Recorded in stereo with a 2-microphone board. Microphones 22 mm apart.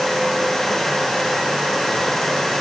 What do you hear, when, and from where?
Only background noise.